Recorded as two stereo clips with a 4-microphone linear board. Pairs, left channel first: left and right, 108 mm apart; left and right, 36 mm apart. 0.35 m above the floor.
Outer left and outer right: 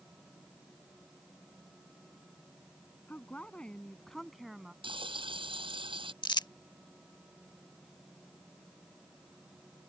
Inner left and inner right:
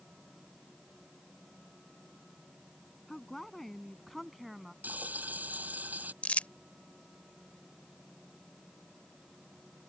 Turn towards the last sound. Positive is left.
turn(degrees=40)  # may be behind; listen again after turning